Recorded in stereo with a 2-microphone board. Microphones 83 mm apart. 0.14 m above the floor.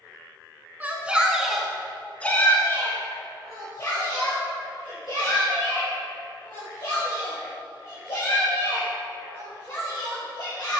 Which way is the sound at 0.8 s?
20° right (ahead or behind).